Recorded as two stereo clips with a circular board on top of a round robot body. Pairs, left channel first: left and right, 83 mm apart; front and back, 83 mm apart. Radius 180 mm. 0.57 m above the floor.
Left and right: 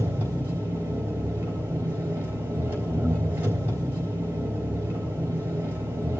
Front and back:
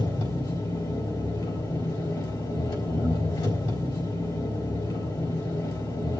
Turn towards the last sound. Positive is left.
turn(degrees=-25)